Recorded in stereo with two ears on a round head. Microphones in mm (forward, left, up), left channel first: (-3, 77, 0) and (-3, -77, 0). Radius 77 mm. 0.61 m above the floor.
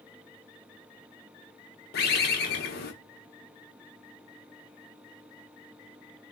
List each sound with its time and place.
1.9 s a bird: 60° left (ahead or behind), 0.6 m